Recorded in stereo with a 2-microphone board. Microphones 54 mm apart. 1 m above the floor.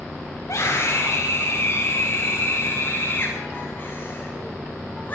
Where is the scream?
70° left (ahead or behind), 4.5 m; by 5.2 s 30° left (ahead or behind), 8 m.